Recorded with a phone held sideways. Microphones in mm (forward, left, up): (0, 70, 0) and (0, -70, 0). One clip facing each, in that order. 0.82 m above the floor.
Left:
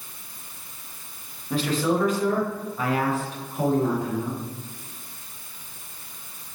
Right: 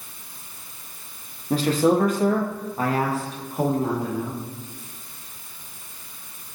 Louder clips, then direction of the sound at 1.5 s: Right 4 dB; 40° right (ahead or behind).